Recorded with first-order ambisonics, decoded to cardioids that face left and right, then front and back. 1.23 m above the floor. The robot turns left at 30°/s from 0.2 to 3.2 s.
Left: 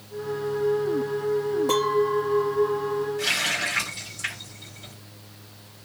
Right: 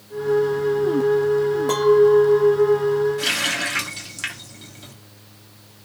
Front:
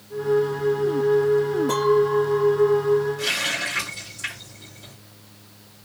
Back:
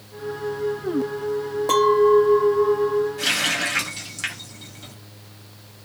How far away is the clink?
About 0.6 m.